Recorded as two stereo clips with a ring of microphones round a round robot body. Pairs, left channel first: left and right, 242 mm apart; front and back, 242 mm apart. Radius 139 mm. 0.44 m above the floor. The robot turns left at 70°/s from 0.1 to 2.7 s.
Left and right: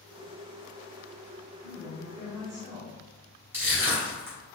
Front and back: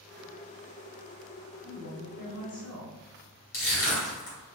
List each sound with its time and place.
1.6 s a woman speaking: 75° left, 1.8 m; by 3.0 s 5° left, 1.8 m
3.5 s crushing: 10° right, 1.9 m